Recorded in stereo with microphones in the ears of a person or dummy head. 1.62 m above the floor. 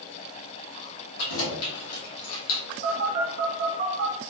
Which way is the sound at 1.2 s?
75° left (ahead or behind).